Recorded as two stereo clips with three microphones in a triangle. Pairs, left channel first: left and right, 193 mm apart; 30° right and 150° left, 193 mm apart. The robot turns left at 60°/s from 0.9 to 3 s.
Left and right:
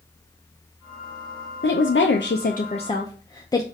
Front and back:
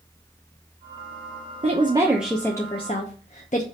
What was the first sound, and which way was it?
A woman speaking, 100° left.